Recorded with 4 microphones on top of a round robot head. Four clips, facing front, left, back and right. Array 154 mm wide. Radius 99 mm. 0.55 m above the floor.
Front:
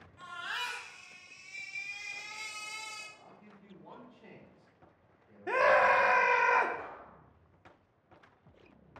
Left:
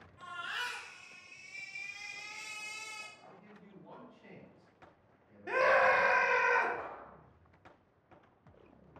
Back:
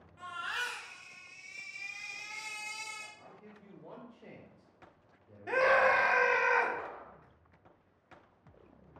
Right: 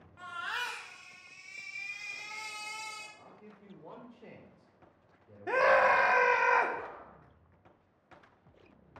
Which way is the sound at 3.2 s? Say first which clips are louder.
Right 2 dB, back 2 dB; 95° right.